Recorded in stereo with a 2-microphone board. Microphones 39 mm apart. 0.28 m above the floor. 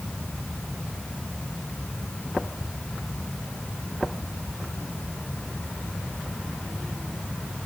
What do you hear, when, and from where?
Only background noise.